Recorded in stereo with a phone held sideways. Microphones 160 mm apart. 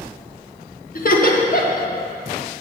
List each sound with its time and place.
0.9 s laughter: 55° left (ahead or behind), 1.3 m